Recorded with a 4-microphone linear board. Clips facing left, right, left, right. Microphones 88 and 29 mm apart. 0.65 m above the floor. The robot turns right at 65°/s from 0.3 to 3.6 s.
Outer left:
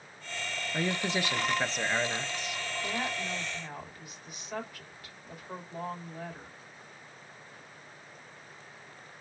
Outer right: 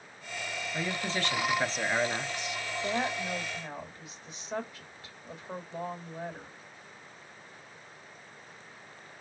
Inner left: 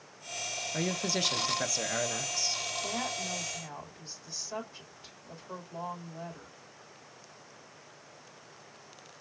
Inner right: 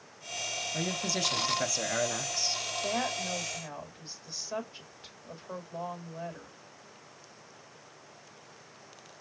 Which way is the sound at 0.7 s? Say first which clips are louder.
Outer left 3 dB, inner left 2 dB; 25° left (ahead or behind).